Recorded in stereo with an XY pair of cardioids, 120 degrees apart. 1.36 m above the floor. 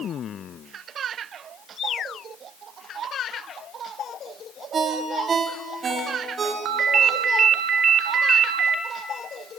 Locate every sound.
4.7 s a ringtone: 40° right, 2.5 m
6.7 s a ringtone: 60° right, 1.3 m